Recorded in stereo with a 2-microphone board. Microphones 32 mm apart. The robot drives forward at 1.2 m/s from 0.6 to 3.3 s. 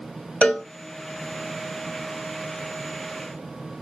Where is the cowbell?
45° left (ahead or behind), 1.5 m.